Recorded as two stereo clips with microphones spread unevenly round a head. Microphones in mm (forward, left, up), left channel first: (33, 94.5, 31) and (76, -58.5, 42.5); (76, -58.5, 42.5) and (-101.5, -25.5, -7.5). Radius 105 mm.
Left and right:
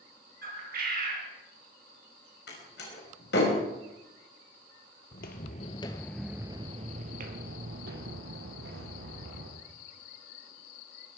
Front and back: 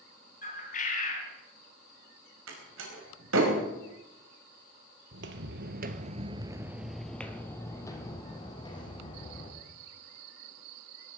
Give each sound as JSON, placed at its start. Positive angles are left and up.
{"t": 0.4, "sound": "a bird", "azimuth_deg": -50, "distance_m": 4.5}
{"t": 2.5, "sound": "a door slam", "azimuth_deg": 145, "distance_m": 4.5}
{"t": 5.1, "sound": "footsteps", "azimuth_deg": 130, "distance_m": 1.8}